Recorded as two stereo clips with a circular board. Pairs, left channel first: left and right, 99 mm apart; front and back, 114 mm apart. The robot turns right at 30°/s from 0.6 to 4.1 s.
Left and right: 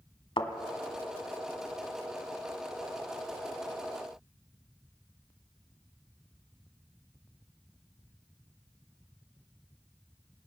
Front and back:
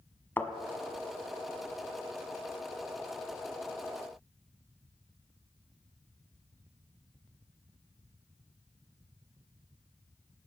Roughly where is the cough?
No cough in this recording.